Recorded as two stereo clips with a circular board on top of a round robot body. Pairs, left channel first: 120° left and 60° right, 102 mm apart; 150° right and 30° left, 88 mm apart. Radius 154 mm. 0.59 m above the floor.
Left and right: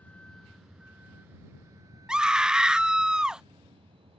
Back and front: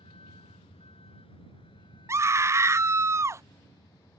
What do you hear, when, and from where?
0.0 s a vehicle: 165° right; by 4.2 s 100° right
2.1 s a scream: 15° left